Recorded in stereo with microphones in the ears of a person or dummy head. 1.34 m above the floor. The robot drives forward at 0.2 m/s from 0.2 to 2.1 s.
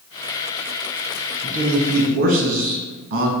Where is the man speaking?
70° right (ahead or behind), 0.9 m; by 3.3 s 75° right (ahead or behind), 0.8 m.